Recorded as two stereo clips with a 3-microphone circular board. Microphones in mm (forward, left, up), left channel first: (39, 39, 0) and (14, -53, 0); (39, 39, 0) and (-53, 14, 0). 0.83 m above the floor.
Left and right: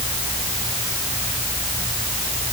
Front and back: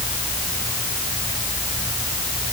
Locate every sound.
Only background noise.